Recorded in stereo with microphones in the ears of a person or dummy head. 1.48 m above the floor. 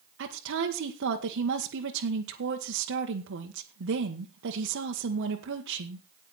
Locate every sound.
0.2 s a woman speaking: 70° right (ahead or behind), 1.2 m